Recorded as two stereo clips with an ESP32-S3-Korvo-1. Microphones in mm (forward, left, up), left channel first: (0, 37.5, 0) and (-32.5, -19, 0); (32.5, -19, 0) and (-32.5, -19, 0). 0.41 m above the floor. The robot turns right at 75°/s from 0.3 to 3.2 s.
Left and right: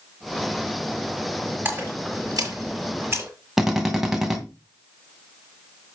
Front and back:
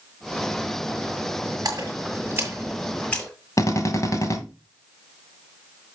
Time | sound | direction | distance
1.6 | a splash | straight behind | 6.5 m
3.6 | a drill | 35° right | 2 m